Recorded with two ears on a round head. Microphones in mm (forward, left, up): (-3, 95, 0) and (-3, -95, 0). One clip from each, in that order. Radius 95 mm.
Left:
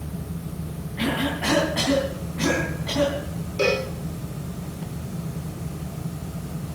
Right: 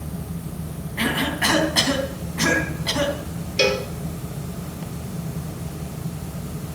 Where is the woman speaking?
I don't hear a woman speaking.